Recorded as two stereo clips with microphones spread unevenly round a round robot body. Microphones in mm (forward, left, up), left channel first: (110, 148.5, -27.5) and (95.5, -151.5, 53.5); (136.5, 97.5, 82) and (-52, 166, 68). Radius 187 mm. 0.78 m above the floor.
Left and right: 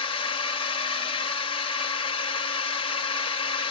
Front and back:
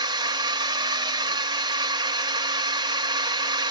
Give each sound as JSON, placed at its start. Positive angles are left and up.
{"t": 0.0, "sound": "a drone", "azimuth_deg": 115}